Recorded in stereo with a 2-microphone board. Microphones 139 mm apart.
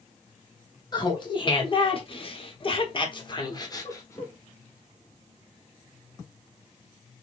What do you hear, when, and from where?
0.9 s laughter: 35° left (ahead or behind), 1.3 m; by 4.3 s 20° left (ahead or behind), 1.2 m